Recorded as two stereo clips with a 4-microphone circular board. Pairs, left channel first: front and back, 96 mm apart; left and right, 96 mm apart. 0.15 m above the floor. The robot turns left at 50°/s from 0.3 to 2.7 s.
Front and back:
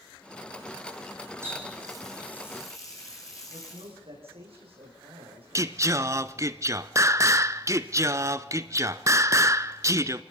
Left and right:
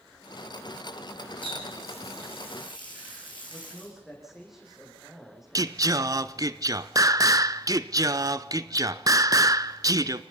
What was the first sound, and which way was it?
A running tap, 115° left.